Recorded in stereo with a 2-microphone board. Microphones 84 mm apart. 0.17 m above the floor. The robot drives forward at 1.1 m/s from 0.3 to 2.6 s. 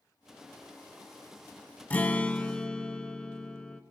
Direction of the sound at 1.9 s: 20° left (ahead or behind).